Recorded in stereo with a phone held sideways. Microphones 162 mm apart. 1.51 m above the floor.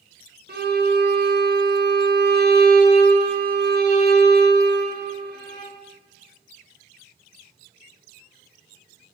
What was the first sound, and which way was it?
A violin, 65° right (ahead or behind).